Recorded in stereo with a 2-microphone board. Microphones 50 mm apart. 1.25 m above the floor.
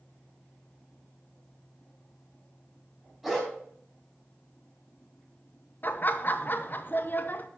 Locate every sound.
3.2 s a dog barking: centre (ahead or behind), 4 m
5.8 s laughter: 40° left (ahead or behind), 1.0 m